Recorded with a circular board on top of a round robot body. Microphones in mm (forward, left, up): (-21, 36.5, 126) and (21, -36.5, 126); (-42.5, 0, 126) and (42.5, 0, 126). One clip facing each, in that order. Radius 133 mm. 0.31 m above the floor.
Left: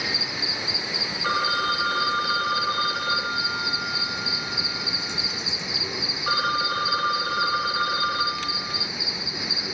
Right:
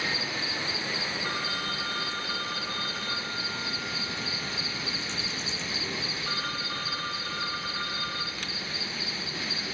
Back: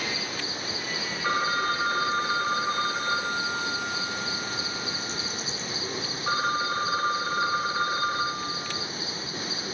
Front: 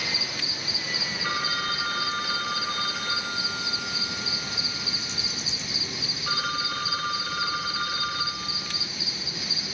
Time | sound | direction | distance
0.0 | an insect | 175° right | 1.4 m
1.2 | a phone ringing | 120° left | 1.0 m